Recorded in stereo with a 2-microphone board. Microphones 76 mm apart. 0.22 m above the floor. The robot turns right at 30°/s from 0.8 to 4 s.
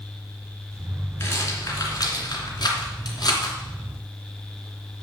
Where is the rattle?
30° left (ahead or behind), 2.5 m; by 3.6 s 60° left (ahead or behind), 2.5 m.